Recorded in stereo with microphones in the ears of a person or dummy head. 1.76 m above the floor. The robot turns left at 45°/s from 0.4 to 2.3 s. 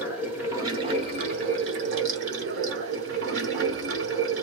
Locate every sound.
0.0 s running water: 15° right, 1.0 m; by 4.4 s 100° right, 1.0 m